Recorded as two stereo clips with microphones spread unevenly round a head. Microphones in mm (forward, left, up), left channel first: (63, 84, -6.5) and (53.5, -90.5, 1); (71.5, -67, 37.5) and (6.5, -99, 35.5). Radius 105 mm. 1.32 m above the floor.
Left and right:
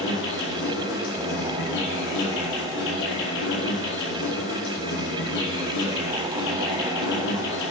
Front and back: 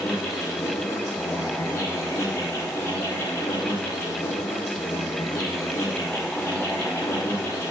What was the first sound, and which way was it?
An insect, 90° left.